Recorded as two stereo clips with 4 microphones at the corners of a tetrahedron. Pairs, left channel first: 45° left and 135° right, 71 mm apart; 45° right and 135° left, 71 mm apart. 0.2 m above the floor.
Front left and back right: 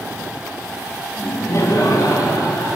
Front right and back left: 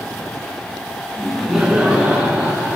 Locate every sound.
1.2 s laughter: 30° left, 1.1 m; by 2.8 s 70° left, 2.5 m